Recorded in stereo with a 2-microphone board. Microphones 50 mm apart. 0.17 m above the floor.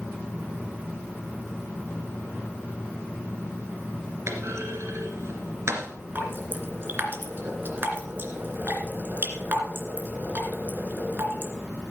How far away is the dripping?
About 2.5 m.